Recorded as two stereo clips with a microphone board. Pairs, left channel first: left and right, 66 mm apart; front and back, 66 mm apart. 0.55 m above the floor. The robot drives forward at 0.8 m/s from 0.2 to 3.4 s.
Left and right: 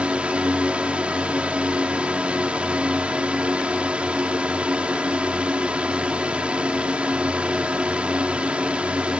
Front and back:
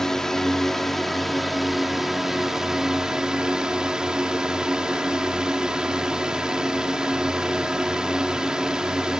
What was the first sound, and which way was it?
A drone, 70° right.